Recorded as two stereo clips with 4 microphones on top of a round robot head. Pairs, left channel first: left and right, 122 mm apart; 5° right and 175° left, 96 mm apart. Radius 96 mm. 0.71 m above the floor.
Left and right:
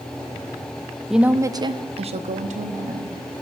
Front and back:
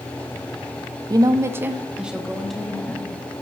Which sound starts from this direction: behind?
A woman speaking, at 1.1 s.